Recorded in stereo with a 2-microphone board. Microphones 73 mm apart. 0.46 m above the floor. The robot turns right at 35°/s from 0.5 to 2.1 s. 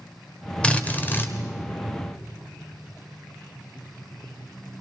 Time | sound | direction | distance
0.6 | a drill | 15° left (ahead or behind) | 2 m